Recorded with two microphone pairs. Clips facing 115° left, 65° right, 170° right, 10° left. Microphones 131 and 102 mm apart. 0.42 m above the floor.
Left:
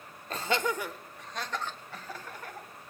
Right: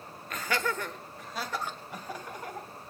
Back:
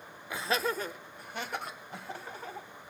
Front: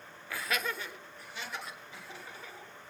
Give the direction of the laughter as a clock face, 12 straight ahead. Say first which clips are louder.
Left 2 dB, back 4 dB; 8 o'clock.